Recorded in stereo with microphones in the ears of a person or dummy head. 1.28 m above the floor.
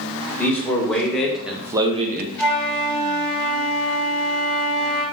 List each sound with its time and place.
0.4 s a man speaking: 15° left (ahead or behind), 1.7 m; by 2.3 s 45° right (ahead or behind), 0.5 m
2.4 s a flute: centre (ahead or behind), 2.5 m